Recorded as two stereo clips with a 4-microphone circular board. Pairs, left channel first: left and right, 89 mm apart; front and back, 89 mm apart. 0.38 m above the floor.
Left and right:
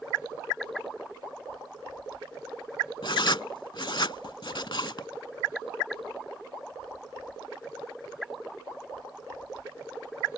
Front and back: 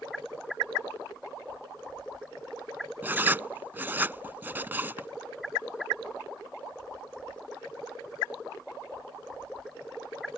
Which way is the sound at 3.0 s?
115° left.